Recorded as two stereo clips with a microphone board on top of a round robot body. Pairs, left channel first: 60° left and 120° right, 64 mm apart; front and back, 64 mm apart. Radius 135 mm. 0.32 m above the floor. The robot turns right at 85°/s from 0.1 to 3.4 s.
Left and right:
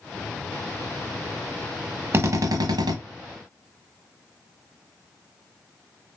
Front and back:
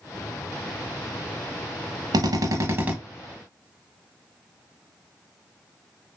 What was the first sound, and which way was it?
A drill, 175° right.